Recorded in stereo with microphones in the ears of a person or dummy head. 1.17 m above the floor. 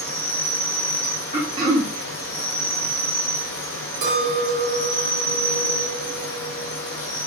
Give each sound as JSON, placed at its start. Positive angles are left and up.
{"t": 0.0, "sound": "an insect", "side_deg": 15, "distance_m": 1.6}
{"t": 1.3, "sound": "throat clearing", "side_deg": -20, "distance_m": 0.7}
{"t": 4.0, "sound": "a clink", "side_deg": -60, "distance_m": 1.7}